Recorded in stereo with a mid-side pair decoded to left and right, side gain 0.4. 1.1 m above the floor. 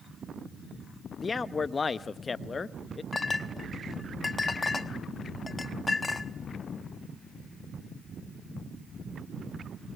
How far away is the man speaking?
About 0.9 m.